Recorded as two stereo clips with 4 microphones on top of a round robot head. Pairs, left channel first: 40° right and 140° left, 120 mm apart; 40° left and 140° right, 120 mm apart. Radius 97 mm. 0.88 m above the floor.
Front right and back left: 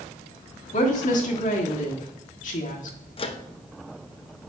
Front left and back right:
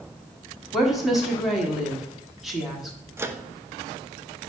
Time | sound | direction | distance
0.7 | a woman speaking | 55° right | 1.6 m
3.2 | a microwave | 75° right | 0.8 m